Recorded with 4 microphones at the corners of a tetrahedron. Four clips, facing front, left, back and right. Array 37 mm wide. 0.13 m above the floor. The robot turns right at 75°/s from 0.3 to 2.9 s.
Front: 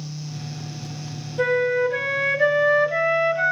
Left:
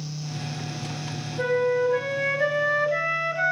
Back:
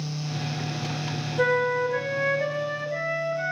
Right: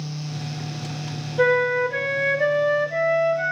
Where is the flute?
85° right, 1.8 m; by 3.5 s 30° left, 1.8 m.